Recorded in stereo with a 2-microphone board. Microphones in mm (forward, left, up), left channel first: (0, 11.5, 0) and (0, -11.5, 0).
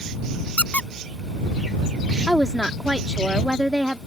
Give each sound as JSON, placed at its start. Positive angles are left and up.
{"t": 0.6, "sound": "a squeak", "side_deg": 80}
{"t": 2.3, "sound": "a woman speaking", "side_deg": -30}